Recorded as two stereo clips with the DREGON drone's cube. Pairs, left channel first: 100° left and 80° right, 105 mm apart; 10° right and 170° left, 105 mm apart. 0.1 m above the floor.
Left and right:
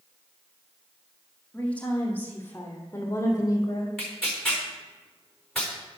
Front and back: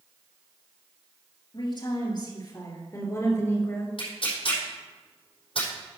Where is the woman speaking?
25° left, 3 m; by 3.9 s 55° left, 2.5 m.